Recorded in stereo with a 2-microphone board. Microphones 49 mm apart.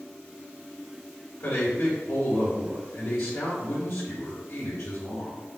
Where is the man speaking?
60° left (ahead or behind), 2 m.